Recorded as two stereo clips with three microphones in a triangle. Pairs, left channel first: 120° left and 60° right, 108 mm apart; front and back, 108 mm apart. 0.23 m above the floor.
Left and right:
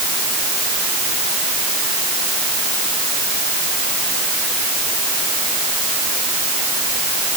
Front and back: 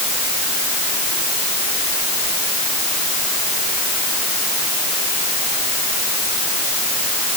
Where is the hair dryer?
I don't hear a hair dryer.